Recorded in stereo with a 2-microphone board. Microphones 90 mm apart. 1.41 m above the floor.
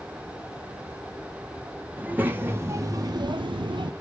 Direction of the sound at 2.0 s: 20° right (ahead or behind).